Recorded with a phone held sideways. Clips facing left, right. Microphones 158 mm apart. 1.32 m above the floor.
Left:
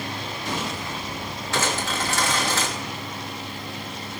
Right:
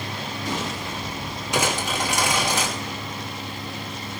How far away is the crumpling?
About 3 m.